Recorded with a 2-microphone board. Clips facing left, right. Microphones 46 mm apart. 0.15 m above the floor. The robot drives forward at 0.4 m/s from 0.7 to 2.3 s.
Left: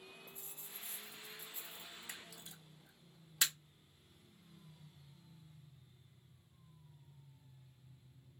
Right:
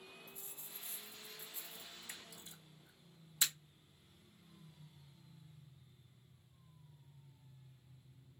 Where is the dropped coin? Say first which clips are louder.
Left 1 dB; 30° left (ahead or behind), 1.5 m; by 2.1 s 45° left (ahead or behind), 1.2 m.